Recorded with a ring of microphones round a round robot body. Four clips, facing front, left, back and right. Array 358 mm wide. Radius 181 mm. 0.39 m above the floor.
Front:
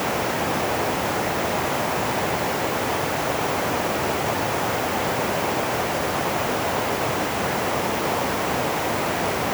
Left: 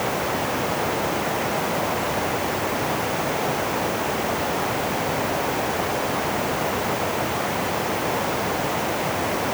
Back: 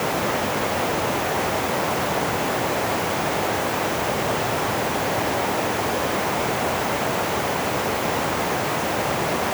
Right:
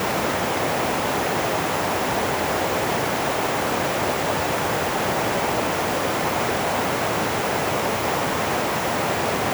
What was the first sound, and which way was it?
Only background noise.